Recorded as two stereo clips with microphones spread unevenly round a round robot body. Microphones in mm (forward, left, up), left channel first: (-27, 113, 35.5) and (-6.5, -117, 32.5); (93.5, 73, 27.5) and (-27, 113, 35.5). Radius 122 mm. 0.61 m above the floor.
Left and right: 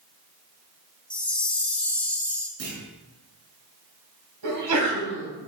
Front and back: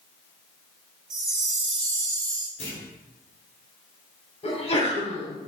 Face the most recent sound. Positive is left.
turn(degrees=-80)